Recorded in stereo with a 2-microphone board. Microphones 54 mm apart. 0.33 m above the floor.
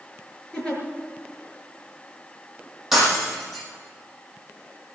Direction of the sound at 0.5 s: 15° left (ahead or behind).